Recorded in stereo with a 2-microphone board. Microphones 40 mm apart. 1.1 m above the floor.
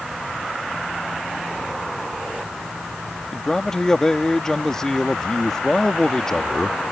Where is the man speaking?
15° left (ahead or behind).